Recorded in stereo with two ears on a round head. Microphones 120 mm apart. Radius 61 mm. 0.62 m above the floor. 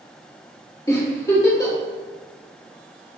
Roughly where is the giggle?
Left.